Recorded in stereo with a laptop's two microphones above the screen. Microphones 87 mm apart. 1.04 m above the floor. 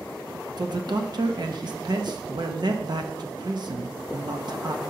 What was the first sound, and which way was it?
A man speaking, 55° right (ahead or behind).